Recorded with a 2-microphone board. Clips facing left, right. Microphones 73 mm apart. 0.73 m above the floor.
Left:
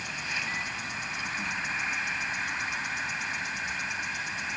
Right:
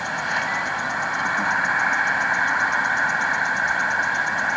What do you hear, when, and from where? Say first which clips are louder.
0.0 s an insect: right 11 dB; 70° right (ahead or behind)